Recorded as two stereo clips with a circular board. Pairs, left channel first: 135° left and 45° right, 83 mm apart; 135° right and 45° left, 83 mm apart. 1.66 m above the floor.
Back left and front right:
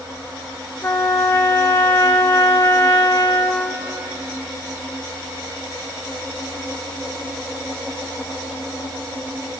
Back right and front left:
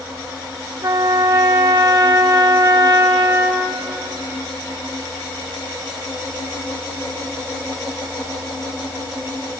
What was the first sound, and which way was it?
A trumpet, 80° left.